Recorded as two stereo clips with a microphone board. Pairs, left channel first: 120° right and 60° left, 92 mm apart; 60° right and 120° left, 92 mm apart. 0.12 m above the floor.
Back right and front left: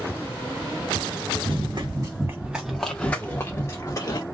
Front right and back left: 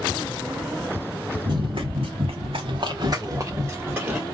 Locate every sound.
1.4 s running footsteps: 90° left, 0.9 m; by 4.2 s 165° right, 1.4 m